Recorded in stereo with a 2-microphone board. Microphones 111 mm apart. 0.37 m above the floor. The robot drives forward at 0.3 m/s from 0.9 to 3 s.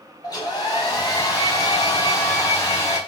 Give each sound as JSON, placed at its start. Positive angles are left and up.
{"t": 0.2, "sound": "a hair dryer", "side_deg": 35, "distance_m": 1.5}